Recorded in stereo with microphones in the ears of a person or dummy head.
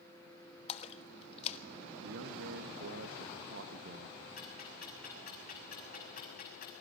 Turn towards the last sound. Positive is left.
turn(degrees=50)  # may be behind; listen again after turning